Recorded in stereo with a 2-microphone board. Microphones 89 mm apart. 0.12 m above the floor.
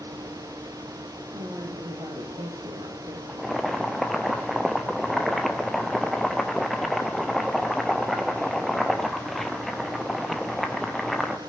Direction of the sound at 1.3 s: 45° right (ahead or behind).